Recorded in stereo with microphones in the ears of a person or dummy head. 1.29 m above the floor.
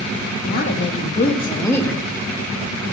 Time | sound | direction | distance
0.4 | a woman speaking | 60° left (ahead or behind) | 1.1 m